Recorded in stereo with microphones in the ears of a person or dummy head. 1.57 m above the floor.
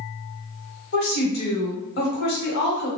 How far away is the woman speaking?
About 1.5 m.